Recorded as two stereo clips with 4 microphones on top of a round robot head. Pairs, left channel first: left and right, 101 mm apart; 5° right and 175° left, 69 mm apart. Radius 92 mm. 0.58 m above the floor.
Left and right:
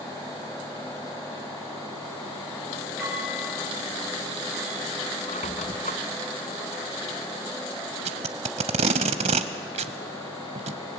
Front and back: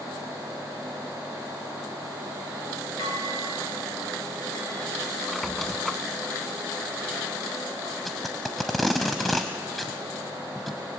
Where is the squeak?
85° left, 0.6 m.